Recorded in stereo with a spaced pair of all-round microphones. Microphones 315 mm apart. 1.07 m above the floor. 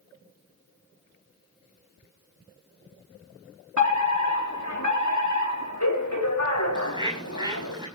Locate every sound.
3.8 s a fire alarm: 70° left (ahead or behind), 4 m
6.8 s a bird: 15° right (ahead or behind), 6 m